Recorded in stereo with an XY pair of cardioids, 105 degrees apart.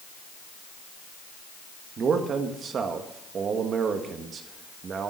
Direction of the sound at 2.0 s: 50° right.